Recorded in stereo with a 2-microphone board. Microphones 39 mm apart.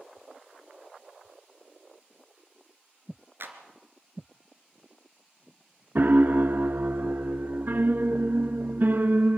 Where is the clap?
65° right (ahead or behind), 3 m.